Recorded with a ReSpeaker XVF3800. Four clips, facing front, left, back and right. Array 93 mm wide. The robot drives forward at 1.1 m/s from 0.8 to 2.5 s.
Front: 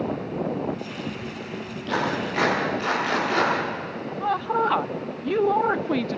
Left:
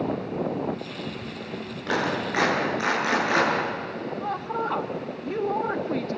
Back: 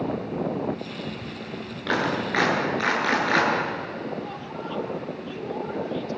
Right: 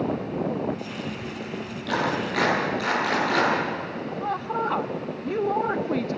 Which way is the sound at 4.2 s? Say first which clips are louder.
Right 2 dB, front 11 dB; 5° right.